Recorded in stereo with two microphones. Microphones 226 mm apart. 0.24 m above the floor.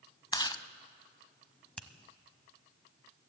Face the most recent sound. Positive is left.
turn(degrees=5)  # may be behind; listen again after turning